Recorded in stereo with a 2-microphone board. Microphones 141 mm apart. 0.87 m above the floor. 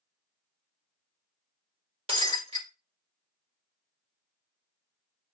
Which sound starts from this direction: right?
Breaking glass, at 2.1 s.